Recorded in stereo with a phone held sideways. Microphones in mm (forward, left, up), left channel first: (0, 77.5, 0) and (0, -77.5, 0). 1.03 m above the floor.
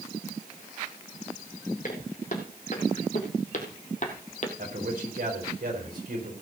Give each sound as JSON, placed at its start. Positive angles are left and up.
{"t": 1.8, "sound": "footsteps", "side_deg": 55, "distance_m": 3.5}
{"t": 4.6, "sound": "a man speaking", "side_deg": -70, "distance_m": 5.0}